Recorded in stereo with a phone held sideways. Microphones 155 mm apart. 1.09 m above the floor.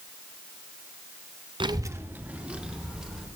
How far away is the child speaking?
About 0.7 m.